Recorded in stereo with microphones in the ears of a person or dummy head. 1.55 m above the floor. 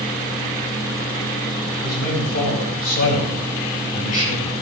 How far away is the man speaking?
About 8.5 m.